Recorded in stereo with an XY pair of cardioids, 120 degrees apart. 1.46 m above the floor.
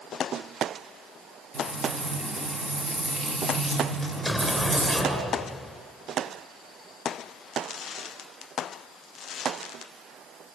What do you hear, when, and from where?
1.5 s frying: 40° right, 5.5 m
4.0 s an explosion: 10° right, 7 m